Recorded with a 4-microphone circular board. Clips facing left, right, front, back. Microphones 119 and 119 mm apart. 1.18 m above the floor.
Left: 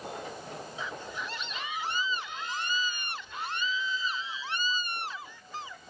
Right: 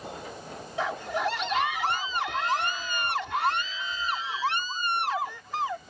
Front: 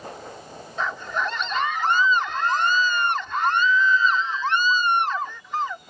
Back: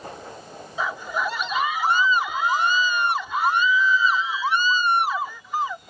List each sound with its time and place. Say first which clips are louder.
0.8 s a scream: right 13 dB, even; 100° right